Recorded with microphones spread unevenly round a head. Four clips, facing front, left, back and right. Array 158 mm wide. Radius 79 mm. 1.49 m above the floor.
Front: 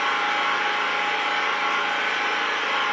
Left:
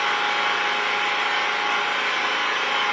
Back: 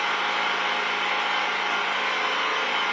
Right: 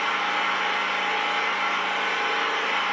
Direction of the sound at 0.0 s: 95° left.